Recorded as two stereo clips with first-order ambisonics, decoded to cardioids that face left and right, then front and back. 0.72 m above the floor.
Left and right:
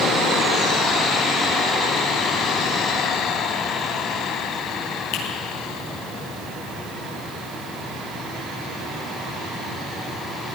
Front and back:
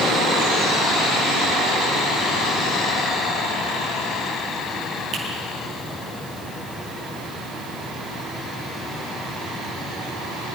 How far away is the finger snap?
About 6.5 m.